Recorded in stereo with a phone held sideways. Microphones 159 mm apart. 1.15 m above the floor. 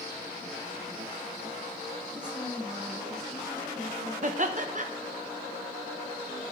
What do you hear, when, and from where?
2.1 s a woman speaking: 10° right (ahead or behind), 3.5 m; by 4.1 s 15° left (ahead or behind), 3 m
4.2 s laughter: 50° right (ahead or behind), 0.6 m